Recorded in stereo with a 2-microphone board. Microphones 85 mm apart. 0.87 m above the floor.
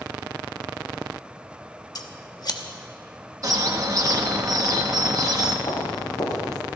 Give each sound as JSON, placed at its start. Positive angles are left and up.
{"t": 1.9, "sound": "scissors", "side_deg": 50, "distance_m": 1.1}
{"t": 3.4, "sound": "a bird", "side_deg": -45, "distance_m": 1.4}
{"t": 5.7, "sound": "footsteps", "side_deg": 45, "distance_m": 3.0}